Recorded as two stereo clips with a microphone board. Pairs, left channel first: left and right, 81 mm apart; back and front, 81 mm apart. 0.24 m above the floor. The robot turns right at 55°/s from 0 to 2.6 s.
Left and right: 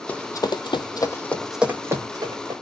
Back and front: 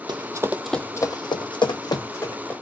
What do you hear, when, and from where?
0.1 s running footsteps: 20° left, 0.6 m; by 2.5 s 105° right, 1.4 m